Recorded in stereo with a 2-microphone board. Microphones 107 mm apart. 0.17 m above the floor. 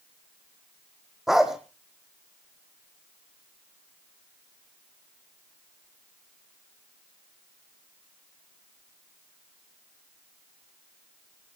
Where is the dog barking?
5° right (ahead or behind), 1.9 m.